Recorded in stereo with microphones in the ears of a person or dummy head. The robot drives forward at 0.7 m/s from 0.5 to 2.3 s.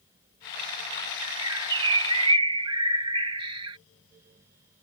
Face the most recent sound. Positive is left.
turn(degrees=-30)  # may be behind; listen again after turning